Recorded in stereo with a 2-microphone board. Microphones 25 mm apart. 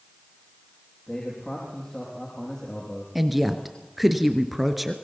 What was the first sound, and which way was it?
A man speaking, 35° left (ahead or behind).